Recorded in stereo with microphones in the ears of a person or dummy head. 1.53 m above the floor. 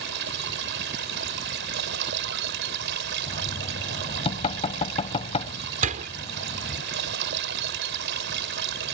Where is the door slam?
40° right (ahead or behind).